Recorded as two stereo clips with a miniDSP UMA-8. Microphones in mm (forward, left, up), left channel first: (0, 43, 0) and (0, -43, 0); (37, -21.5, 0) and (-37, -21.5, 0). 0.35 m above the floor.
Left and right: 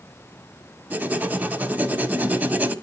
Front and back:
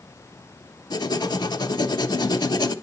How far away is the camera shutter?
No camera shutter in this recording.